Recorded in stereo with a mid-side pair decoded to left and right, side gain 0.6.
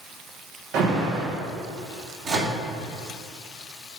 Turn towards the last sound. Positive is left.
turn(degrees=-45)